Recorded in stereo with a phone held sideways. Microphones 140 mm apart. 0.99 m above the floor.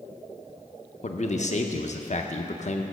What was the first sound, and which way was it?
A man speaking, 50° left (ahead or behind).